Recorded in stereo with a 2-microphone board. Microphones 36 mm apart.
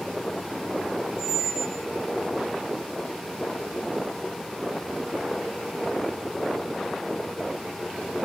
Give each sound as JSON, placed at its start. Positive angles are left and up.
{"t": 1.2, "sound": "a squeak", "side_deg": 50, "distance_m": 1.8}